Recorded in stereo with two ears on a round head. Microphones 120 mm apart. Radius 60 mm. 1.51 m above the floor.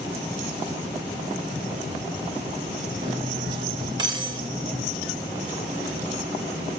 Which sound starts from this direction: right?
Cutlery clinking, at 3.0 s.